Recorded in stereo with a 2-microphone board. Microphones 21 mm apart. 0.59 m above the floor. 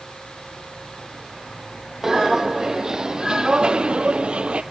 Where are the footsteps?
25° right (ahead or behind), 1.7 m; by 4.6 s 60° right (ahead or behind), 1.1 m.